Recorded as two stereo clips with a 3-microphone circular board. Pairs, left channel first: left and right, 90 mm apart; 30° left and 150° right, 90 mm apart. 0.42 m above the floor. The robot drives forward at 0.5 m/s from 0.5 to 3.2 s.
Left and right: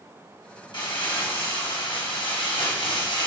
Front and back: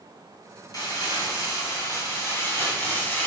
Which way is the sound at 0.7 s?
70° left.